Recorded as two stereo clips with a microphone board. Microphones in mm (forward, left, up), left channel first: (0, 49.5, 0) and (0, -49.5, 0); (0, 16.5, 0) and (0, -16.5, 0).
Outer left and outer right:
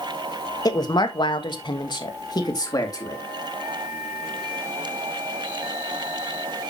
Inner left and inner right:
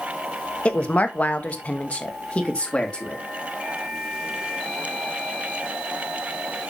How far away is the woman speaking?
About 1.1 m.